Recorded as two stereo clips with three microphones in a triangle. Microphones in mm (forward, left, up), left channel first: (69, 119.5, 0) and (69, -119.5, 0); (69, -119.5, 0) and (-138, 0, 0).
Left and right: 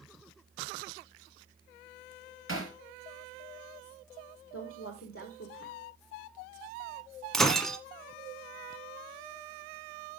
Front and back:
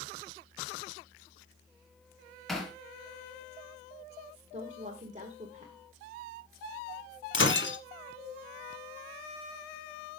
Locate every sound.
2.5 s hammering: 60° left, 2.5 m
4.5 s a woman speaking: 95° left, 1.6 m
7.3 s breaking glass: straight ahead, 1.5 m